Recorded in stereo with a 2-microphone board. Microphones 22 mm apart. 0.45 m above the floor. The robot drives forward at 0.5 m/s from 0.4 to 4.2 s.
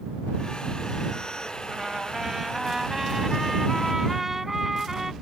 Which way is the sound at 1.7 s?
25° right (ahead or behind).